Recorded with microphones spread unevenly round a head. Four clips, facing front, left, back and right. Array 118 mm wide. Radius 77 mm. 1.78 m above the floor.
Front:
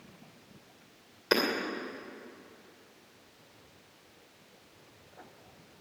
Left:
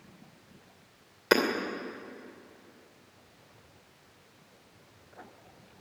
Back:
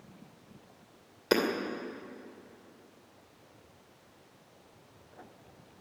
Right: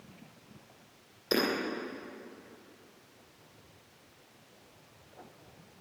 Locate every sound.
1.3 s hammering: 155° left, 2.5 m